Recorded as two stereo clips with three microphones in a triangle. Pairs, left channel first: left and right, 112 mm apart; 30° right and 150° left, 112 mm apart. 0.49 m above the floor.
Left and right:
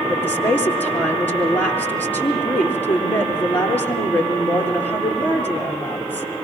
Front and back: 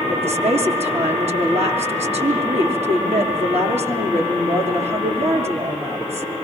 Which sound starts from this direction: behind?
A woman speaking, at 0.1 s.